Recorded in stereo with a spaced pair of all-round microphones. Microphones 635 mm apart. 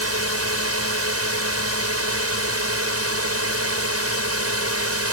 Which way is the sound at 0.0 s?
20° right (ahead or behind).